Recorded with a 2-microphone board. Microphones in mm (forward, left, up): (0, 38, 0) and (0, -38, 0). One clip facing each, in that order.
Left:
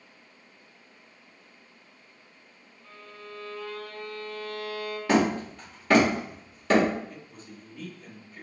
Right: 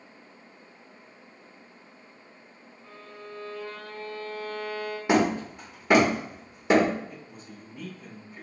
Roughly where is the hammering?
Centre.